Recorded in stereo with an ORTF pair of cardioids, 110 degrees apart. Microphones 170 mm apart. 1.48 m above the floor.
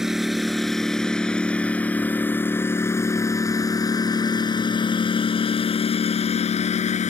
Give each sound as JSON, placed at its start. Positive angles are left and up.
{"t": 0.0, "sound": "a lawn mower", "azimuth_deg": 0}